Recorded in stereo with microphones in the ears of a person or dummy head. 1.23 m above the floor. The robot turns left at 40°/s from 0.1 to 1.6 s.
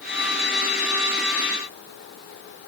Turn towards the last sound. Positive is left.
No sound to turn to.